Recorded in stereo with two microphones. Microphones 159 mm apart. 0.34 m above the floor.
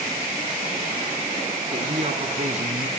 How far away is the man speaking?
About 3 m.